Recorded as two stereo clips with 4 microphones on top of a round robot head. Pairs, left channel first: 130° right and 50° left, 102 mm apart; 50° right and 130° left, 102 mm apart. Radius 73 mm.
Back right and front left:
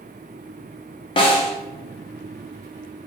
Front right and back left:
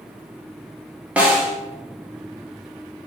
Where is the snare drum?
155° right, 1.0 m.